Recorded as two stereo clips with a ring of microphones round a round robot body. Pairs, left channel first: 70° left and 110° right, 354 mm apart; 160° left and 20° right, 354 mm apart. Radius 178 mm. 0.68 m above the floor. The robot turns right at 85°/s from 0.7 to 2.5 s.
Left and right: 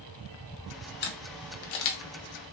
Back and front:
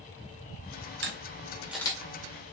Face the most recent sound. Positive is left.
turn(degrees=130)